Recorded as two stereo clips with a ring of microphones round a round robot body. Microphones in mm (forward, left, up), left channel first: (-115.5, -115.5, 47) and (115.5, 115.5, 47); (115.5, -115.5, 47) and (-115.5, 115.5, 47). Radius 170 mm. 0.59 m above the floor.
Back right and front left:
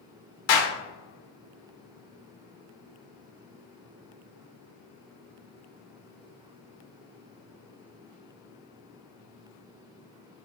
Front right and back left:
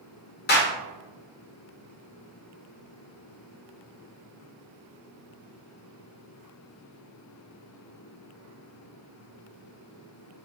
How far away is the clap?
About 1.2 m.